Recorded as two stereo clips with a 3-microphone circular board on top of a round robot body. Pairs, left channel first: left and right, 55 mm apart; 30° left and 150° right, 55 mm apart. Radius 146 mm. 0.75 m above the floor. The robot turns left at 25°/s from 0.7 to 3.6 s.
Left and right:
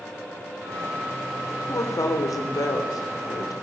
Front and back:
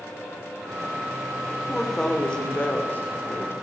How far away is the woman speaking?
About 2.5 m.